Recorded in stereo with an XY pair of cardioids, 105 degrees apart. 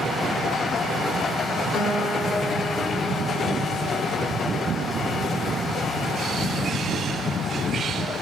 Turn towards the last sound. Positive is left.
turn(degrees=70)